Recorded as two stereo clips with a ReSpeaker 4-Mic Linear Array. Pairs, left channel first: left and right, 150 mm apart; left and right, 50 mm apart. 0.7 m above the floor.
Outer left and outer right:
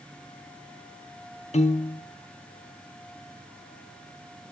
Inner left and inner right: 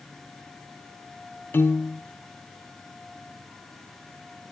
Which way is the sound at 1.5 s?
45° left (ahead or behind).